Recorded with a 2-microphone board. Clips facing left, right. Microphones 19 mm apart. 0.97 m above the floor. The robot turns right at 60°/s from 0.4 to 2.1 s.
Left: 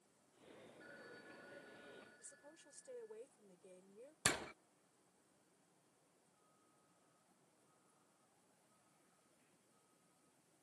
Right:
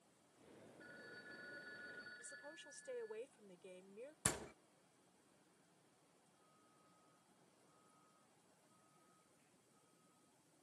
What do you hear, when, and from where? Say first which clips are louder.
0.8 s a phone ringing: right 2 dB; 175° left; by 3.2 s 110° right
2.2 s a woman speaking: right 7 dB; 65° right (ahead or behind)
4.2 s a door slam: left 5 dB; 50° left (ahead or behind)